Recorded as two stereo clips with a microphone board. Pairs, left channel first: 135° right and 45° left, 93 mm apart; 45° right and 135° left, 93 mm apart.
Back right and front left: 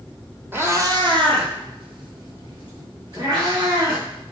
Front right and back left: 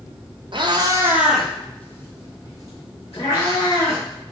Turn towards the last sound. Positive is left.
turn(degrees=0)